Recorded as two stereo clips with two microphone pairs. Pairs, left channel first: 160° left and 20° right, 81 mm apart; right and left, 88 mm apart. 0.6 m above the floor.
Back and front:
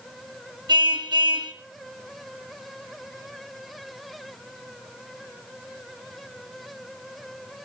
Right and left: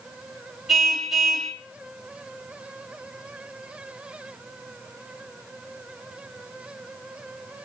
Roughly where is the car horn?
Ahead.